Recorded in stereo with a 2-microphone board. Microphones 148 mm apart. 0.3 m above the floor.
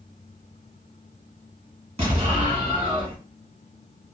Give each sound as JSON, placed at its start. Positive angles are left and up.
{"t": 2.0, "sound": "an explosion", "side_deg": -50, "distance_m": 1.2}